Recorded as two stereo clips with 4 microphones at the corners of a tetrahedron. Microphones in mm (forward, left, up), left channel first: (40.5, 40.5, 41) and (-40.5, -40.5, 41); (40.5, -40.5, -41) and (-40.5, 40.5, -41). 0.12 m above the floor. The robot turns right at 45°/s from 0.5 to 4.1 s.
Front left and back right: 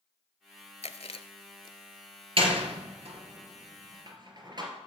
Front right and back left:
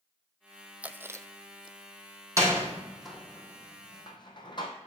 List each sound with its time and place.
0.8 s chewing: 55° left, 0.7 m; by 1.8 s 100° left, 0.7 m
2.4 s a door slam: 165° right, 2.5 m; by 4.7 s 90° right, 2.5 m